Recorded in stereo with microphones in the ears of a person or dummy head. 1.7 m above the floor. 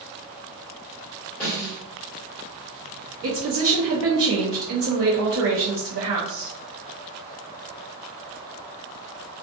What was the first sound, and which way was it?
A snare drum, 10° left (ahead or behind).